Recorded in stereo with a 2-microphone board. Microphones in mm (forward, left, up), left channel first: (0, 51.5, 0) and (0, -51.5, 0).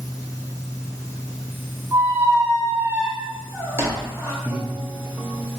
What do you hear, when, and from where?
1.9 s a squeak: 25° right (ahead or behind), 0.8 m
4.5 s breathing: 20° right (ahead or behind), 0.6 m